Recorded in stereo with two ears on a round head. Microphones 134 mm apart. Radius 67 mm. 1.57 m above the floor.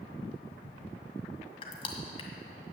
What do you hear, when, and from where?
1.6 s crushing: 40° left (ahead or behind), 1.8 m